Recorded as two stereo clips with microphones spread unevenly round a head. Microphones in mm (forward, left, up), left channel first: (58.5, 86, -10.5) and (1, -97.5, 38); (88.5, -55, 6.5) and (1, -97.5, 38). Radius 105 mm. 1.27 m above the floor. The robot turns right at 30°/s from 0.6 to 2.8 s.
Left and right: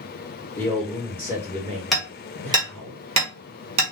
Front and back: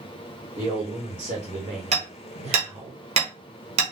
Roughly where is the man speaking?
Behind left.